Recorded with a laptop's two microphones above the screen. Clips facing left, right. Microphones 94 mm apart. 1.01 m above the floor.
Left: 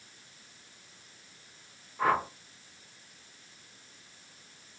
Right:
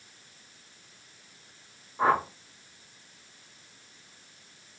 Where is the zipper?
I don't hear a zipper.